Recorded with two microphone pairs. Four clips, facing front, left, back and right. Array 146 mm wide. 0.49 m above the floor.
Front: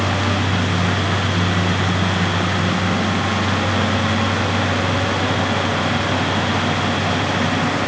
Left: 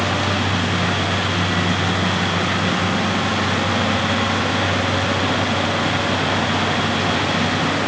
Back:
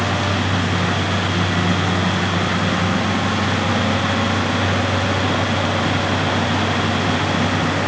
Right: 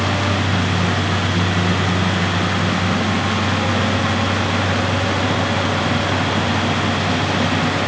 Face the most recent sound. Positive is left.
No sound to turn to.